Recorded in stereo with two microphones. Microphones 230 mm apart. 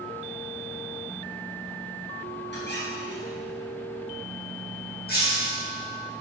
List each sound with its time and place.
2.5 s a squeak: 50° left (ahead or behind), 5 m
5.1 s breaking glass: 45° left (ahead or behind), 7.5 m